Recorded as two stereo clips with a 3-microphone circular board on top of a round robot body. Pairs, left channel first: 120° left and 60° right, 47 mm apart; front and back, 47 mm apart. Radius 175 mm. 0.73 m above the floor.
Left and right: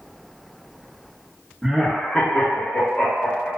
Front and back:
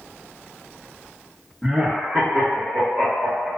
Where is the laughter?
130° right, 0.9 m; by 3.5 s 120° left, 1.8 m.